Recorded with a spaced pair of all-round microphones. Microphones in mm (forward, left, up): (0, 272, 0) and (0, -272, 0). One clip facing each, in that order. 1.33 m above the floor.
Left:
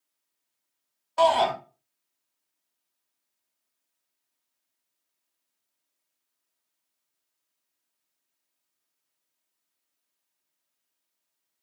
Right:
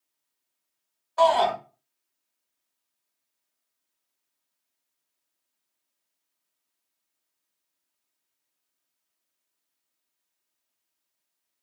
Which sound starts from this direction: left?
A shout, at 1.2 s.